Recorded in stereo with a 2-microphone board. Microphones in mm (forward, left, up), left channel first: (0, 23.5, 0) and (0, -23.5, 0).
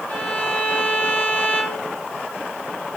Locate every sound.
0.1 s a violin: 35° left (ahead or behind), 1.9 m